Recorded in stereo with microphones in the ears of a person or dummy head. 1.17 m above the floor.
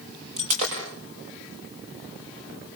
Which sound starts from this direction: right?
Breaking glass, at 0.4 s.